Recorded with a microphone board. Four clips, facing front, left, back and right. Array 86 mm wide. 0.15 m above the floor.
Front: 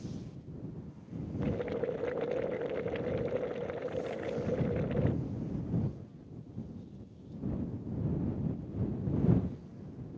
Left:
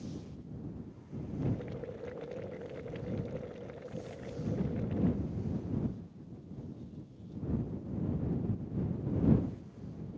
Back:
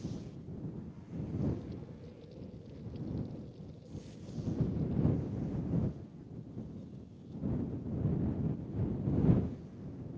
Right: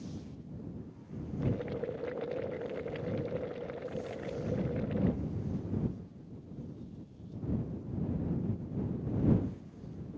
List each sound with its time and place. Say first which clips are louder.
1.4 s boiling: right 4 dB, front 9 dB; 15° right